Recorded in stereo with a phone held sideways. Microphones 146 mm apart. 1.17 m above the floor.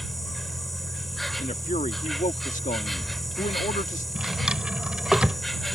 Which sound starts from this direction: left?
A man speaking, at 1.4 s.